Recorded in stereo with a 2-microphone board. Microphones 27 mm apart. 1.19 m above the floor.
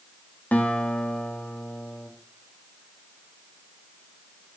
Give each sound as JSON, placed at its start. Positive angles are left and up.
{"t": 0.5, "sound": "a guitar", "side_deg": 85, "distance_m": 1.8}